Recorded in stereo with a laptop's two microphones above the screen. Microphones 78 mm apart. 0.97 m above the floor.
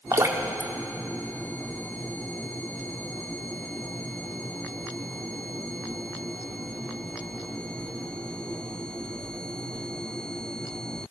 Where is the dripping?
40° right (ahead or behind), 0.8 m.